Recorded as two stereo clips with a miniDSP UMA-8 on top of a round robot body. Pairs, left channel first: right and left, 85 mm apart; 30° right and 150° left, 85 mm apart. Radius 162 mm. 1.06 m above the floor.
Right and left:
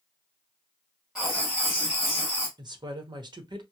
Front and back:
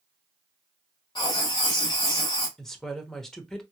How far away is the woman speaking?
About 1.1 m.